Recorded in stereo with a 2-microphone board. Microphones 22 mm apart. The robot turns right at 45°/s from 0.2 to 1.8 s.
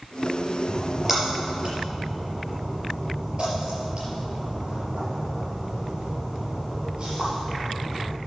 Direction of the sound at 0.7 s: 5° left (ahead or behind).